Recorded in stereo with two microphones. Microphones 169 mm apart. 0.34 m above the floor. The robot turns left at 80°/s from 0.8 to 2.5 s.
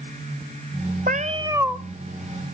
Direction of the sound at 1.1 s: 120° right.